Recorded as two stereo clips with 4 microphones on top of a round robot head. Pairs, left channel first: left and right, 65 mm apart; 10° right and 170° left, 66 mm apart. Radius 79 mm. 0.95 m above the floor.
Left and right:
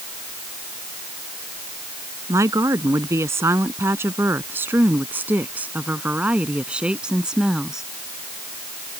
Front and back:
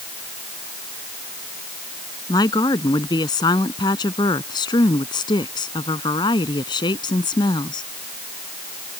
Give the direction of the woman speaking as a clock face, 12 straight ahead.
1 o'clock.